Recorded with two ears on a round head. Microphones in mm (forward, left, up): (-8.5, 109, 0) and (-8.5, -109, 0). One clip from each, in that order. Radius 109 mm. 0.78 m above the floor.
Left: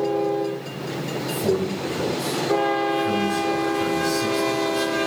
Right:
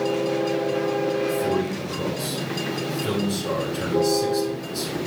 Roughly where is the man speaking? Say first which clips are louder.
Even; centre.